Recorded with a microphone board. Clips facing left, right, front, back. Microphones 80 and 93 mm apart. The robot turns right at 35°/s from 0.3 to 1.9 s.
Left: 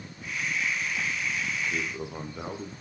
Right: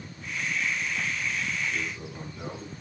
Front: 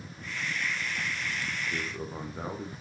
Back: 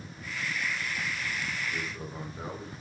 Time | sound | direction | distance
1.7 | a man speaking | 45° left | 6.5 m